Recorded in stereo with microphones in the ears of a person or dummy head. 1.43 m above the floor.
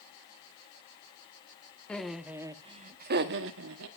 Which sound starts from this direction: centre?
Laughter, at 1.9 s.